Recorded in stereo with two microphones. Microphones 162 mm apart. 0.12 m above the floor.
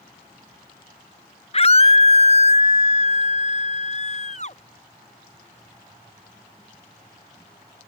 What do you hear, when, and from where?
1.5 s a scream: 40° left (ahead or behind); by 4.6 s 45° left (ahead or behind)